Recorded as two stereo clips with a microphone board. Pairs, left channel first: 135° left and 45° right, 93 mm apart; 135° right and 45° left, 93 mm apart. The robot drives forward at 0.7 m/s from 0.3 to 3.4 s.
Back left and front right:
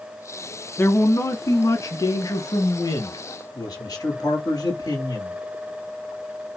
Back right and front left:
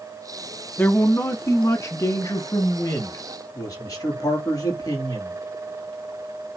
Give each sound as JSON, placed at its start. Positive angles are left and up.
{"t": 0.8, "sound": "a man speaking", "azimuth_deg": 175, "distance_m": 1.1}